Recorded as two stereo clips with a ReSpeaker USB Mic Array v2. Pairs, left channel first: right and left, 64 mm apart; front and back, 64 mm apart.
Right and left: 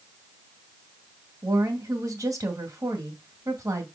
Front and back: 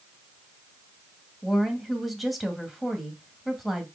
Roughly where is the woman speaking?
Left.